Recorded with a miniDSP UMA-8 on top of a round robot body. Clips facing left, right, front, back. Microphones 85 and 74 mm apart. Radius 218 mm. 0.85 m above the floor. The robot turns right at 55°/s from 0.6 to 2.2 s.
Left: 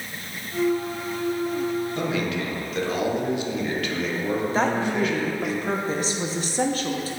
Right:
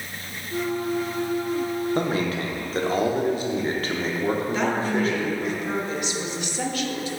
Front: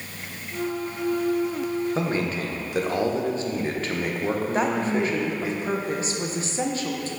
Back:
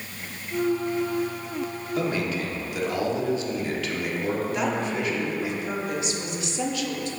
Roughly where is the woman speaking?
Ahead left.